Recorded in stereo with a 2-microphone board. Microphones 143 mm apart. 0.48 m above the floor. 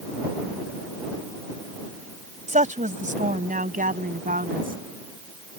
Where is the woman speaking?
60° right (ahead or behind); by 4.8 s 75° right (ahead or behind).